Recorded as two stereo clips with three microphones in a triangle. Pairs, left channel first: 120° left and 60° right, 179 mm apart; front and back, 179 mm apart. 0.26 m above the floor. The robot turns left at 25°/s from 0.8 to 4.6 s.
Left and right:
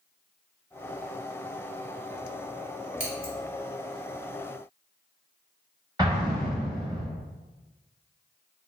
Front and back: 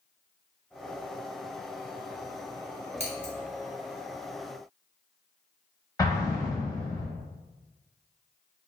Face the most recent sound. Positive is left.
turn(degrees=-40)